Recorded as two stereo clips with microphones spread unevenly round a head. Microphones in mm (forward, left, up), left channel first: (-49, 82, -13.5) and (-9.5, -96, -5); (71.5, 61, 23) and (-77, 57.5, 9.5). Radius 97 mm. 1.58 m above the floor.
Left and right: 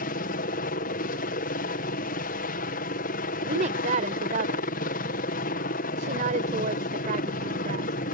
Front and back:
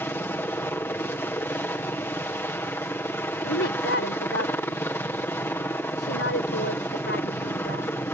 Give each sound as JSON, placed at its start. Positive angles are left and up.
{"t": 0.0, "sound": "a helicopter", "azimuth_deg": 75}
{"t": 3.4, "sound": "a woman speaking", "azimuth_deg": -25}